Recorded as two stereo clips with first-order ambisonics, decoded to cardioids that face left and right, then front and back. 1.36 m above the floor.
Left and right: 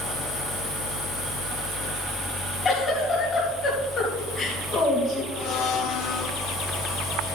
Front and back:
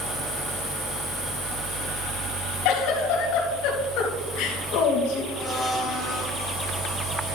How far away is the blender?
About 1.3 m.